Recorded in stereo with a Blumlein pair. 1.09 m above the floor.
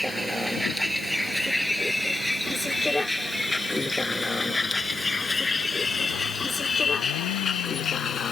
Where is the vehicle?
Straight ahead; by 8.3 s 20° left.